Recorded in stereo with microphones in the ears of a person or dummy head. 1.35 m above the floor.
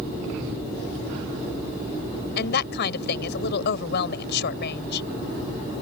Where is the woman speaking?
70° left (ahead or behind).